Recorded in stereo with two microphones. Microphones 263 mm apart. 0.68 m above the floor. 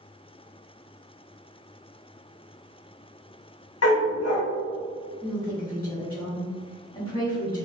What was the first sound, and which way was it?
A dog barking, 70° left (ahead or behind).